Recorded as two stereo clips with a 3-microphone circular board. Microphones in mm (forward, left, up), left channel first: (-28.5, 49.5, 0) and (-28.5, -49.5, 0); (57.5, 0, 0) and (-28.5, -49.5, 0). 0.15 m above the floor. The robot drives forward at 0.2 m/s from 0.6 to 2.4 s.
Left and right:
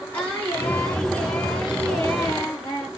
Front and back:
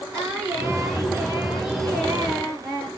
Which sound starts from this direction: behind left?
Singing, at 0.1 s.